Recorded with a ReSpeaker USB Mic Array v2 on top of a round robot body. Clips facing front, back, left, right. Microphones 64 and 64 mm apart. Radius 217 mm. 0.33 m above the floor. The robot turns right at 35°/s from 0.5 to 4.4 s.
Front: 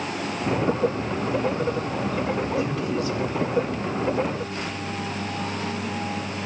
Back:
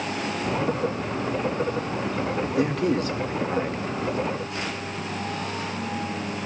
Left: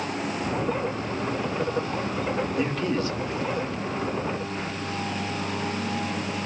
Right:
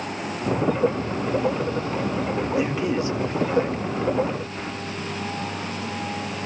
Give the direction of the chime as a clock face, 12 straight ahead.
I don't hear a chime.